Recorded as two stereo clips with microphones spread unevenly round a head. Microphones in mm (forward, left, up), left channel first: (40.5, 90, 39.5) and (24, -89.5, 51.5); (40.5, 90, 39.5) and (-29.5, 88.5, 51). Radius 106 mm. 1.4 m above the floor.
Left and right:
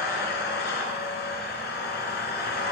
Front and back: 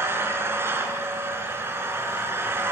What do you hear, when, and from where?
0.0 s an engine running: 130° left, 5 m